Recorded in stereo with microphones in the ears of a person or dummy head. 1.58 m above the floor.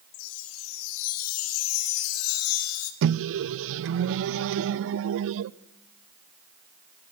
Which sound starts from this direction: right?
A microwave, at 3.0 s.